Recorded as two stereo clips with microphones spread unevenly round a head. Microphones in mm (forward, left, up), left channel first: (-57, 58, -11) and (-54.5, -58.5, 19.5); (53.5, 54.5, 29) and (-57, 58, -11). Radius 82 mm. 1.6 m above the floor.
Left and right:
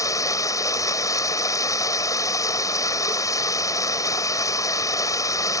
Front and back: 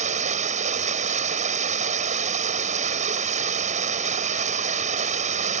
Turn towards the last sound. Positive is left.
turn(degrees=160)